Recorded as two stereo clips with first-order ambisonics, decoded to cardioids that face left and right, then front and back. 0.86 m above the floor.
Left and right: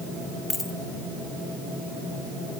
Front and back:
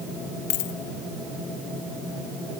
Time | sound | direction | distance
0.5 | a dropped coin | 10° left | 1.5 m